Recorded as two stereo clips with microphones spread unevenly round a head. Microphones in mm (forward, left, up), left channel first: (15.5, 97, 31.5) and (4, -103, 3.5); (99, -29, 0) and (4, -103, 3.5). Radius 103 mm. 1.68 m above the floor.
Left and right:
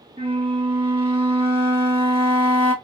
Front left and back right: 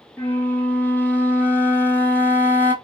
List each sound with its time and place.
0.2 s a flute: 35° right, 1.2 m